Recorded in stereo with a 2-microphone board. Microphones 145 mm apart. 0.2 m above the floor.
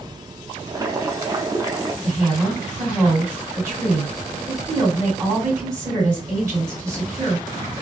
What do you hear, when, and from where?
0.7 s boiling: 25° right (ahead or behind), 0.6 m
2.0 s a woman speaking: 20° right (ahead or behind), 2 m